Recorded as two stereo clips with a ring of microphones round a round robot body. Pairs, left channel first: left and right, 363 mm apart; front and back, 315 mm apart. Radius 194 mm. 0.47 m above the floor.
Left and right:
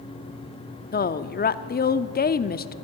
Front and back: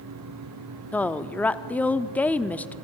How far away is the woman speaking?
About 0.8 m.